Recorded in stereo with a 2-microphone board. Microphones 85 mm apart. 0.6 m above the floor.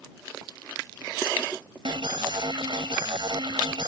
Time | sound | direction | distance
1.9 | an alarm | 65° right (ahead or behind) | ?